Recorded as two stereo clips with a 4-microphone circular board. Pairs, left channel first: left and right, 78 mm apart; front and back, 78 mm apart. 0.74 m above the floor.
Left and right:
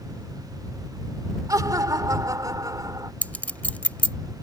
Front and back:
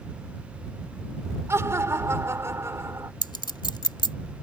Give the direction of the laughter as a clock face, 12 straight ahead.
4 o'clock.